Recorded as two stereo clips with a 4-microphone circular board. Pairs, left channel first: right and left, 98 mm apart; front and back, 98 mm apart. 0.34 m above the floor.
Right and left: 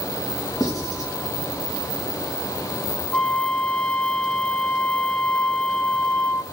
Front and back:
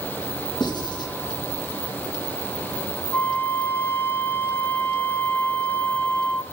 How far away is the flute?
About 1.0 m.